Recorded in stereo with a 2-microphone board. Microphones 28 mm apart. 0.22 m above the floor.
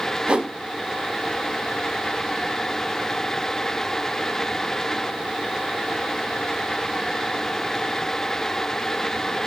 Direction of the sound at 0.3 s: 40° right (ahead or behind).